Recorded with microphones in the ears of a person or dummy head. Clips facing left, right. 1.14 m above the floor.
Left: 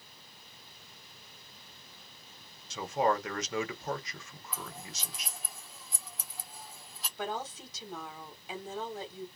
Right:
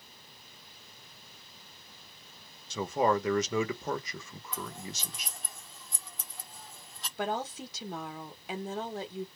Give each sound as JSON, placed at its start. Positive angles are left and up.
{"t": 2.7, "sound": "a man speaking", "side_deg": -85, "distance_m": 0.9}
{"t": 4.5, "sound": "scissors", "side_deg": 0, "distance_m": 0.5}
{"t": 7.2, "sound": "a woman speaking", "side_deg": -55, "distance_m": 1.1}